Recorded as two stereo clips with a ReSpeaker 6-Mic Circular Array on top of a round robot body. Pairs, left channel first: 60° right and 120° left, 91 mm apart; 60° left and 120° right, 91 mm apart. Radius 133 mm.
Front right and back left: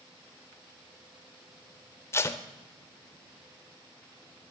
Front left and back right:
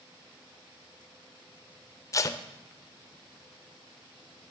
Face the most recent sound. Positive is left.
turn(degrees=5)